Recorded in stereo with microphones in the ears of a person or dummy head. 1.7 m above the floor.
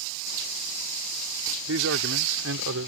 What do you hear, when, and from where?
1.7 s a man speaking: 75° right (ahead or behind); by 2.9 s 80° right